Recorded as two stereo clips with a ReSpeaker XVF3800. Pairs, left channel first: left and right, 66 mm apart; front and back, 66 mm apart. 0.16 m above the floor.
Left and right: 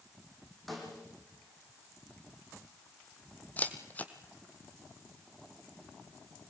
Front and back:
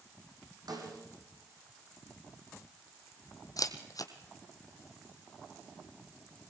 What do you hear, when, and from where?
0.7 s a snare drum: straight behind, 6.5 m
3.6 s a camera shutter: 25° left, 1.8 m